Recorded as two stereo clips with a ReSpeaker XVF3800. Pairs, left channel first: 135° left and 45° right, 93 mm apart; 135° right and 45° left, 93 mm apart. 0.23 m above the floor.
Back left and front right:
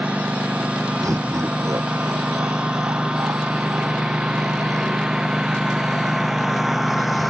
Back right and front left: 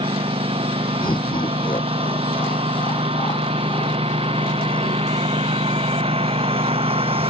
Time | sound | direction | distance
0.0 | a lawn mower | 30° left | ?
1.0 | laughter | 100° right | ?